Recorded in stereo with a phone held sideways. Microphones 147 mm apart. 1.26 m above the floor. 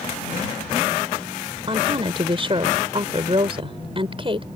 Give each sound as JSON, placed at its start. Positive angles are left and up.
{"t": 1.7, "sound": "a woman speaking", "side_deg": -35}